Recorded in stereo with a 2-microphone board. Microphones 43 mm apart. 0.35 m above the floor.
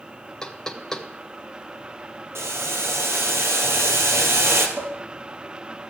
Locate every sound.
0.4 s knocking: 10° left (ahead or behind), 1.1 m
2.4 s boiling: 70° right (ahead or behind), 1.5 m
4.8 s dishes clattering: 75° right (ahead or behind), 4 m